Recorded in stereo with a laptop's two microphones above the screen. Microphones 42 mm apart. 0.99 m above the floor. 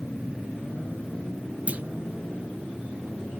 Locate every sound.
1.7 s a clunk: 35° right (ahead or behind), 0.6 m